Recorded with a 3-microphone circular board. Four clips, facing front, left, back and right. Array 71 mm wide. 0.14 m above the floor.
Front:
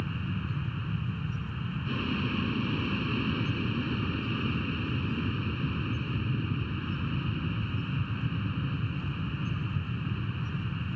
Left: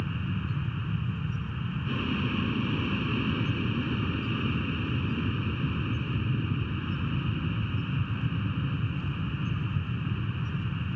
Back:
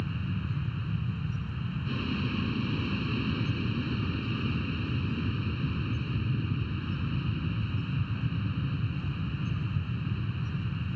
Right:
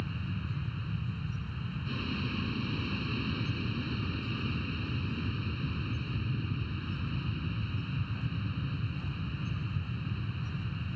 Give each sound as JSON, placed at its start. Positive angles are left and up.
{"t": 0.0, "sound": "an aircraft", "azimuth_deg": 60}